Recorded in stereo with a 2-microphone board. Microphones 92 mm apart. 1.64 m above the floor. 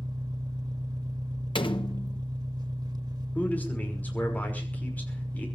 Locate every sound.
0.0 s an engine running: 55° right (ahead or behind), 1.8 m
1.6 s a door slam: 65° left (ahead or behind), 1.2 m
3.4 s a man speaking: 20° left (ahead or behind), 5.5 m